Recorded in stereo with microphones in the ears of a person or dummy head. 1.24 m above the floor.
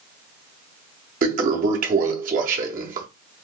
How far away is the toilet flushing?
About 0.6 m.